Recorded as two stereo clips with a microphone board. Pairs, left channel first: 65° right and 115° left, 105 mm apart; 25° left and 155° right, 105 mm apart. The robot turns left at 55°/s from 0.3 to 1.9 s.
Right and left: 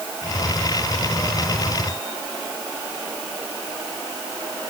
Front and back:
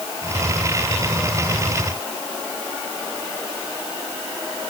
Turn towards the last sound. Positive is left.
No sound to turn to.